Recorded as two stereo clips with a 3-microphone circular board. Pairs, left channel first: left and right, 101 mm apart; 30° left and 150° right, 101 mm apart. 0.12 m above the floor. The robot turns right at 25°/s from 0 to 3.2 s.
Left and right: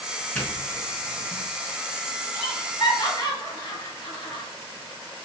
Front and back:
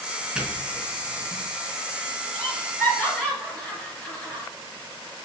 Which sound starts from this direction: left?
Laughter, at 2.3 s.